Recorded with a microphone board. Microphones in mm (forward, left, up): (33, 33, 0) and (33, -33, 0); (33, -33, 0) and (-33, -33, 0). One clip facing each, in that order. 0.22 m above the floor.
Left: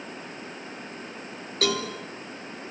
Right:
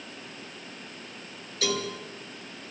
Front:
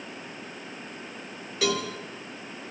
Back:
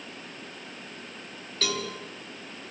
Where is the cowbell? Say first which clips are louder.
Left 3 dB, front 5 dB; 80° left, 2.5 m.